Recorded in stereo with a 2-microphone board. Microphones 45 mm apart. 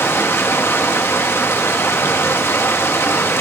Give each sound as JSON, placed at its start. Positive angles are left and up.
{"t": 0.0, "sound": "running water", "side_deg": 65, "distance_m": 1.2}